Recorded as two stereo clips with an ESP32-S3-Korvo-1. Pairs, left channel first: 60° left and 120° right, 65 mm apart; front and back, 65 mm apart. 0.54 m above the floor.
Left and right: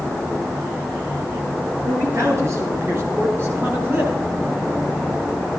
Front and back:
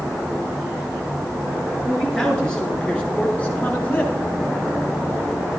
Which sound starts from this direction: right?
A man speaking, at 1.9 s.